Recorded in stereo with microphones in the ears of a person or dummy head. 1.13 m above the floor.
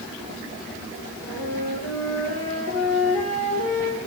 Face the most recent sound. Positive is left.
turn(degrees=70)  # may be behind; listen again after turning